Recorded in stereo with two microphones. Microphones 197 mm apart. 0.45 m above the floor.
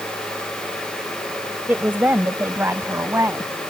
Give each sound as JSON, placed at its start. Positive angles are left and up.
{"t": 1.7, "sound": "a woman speaking", "side_deg": -10}